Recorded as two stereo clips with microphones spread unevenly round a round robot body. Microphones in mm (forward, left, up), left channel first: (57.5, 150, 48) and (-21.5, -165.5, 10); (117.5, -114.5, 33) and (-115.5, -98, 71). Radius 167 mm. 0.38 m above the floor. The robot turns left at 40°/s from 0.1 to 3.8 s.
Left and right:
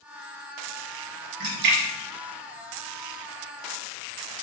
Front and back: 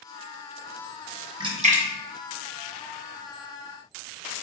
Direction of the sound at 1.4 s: 110° right.